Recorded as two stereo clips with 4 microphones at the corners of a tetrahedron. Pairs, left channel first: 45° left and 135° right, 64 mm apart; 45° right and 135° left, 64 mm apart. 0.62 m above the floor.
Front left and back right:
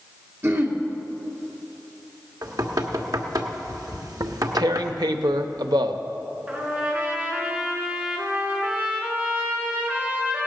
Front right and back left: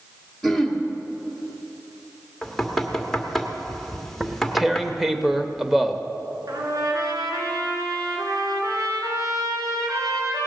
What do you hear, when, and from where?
0.4 s throat clearing: 125° right, 1.5 m
2.4 s knocking: 130° right, 1.3 m
4.2 s tearing paper: 140° right, 0.7 m
6.5 s a trumpet: 160° left, 3 m